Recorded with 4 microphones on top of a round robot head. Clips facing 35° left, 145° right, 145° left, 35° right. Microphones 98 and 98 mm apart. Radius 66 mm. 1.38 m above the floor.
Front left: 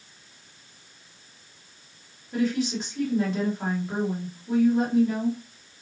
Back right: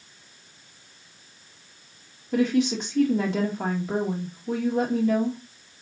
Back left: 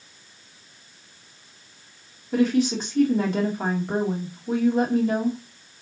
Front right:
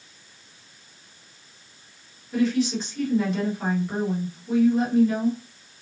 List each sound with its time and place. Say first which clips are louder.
2.3 s a woman speaking: back right 3 dB, back left 2 dB; 165° right, 2 m